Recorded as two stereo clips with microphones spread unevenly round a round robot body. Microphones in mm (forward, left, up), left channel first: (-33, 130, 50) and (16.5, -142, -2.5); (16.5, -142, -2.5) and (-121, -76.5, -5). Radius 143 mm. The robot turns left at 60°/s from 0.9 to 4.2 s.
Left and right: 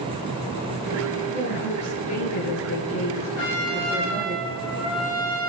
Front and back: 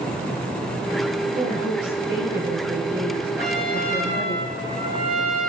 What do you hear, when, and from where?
1.3 s a woman speaking: straight behind, 8.5 m; by 4.3 s 10° left, 8.5 m
3.4 s a trumpet: 75° left, 7 m; by 5.5 s 25° left, 7 m